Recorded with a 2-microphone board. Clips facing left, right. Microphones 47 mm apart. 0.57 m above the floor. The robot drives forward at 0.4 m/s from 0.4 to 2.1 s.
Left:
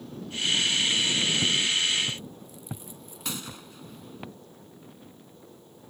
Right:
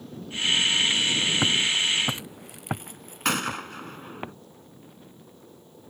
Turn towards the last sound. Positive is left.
turn(degrees=-55)  # may be behind; listen again after turning